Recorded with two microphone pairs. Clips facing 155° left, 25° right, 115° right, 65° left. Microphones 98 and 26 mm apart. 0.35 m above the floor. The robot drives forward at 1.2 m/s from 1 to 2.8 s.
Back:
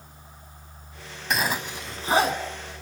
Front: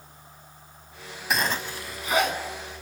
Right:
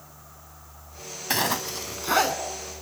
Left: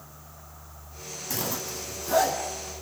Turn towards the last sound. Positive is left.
turn(degrees=-160)